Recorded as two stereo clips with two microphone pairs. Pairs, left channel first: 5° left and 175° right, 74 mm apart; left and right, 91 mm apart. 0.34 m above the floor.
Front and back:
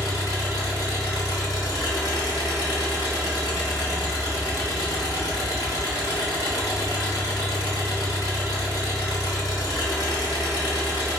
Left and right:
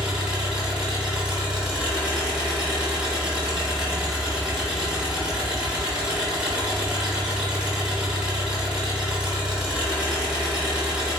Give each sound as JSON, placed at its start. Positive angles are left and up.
{"t": 0.0, "sound": "an engine running", "azimuth_deg": -10, "distance_m": 1.0}